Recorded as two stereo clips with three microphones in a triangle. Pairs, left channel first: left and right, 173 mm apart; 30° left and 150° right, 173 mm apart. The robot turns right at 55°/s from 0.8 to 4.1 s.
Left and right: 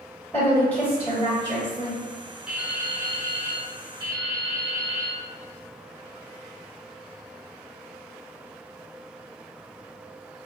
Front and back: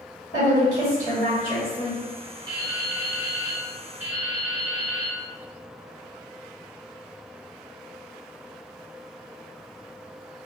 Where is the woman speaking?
15° left, 1.4 m; by 2.0 s 80° left, 1.4 m.